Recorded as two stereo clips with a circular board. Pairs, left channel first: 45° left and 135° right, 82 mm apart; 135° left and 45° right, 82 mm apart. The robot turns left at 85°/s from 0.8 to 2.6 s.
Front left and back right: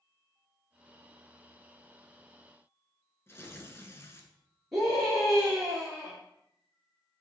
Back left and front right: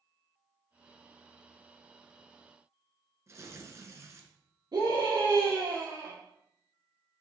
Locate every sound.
3.3 s tearing paper: 5° right, 1.1 m
4.7 s a scream: 45° right, 3 m